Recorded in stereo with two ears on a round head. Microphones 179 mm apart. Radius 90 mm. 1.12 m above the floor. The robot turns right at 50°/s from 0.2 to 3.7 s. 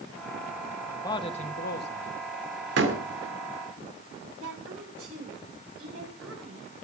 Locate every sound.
0.9 s a man speaking: 10° left, 1.5 m; by 2.1 s 75° left, 1.5 m
2.8 s a door slam: 60° right (ahead or behind), 2.5 m; by 3.0 s 50° right (ahead or behind), 2.5 m
4.4 s a woman speaking: 85° right, 9.5 m